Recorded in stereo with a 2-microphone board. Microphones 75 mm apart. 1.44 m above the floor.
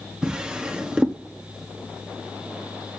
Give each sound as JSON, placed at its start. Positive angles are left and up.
{"t": 0.2, "sound": "a drawer", "side_deg": -10, "distance_m": 1.2}